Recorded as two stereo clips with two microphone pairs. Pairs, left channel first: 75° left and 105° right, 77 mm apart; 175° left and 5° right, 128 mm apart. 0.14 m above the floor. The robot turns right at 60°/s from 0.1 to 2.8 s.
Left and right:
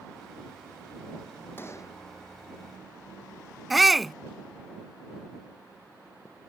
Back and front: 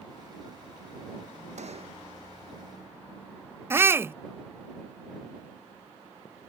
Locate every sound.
1.6 s a gunshot: 15° left; by 2.0 s 40° left
3.7 s a shout: 15° right